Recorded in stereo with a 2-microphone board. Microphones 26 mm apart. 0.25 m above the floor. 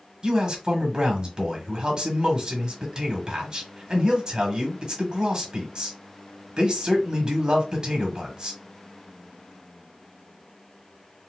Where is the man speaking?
30° right (ahead or behind), 1.5 m.